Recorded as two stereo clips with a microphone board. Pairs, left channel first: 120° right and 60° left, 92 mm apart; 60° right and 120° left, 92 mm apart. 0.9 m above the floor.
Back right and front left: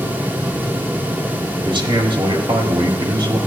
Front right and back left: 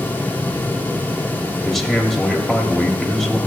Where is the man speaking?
30° left, 1.4 m.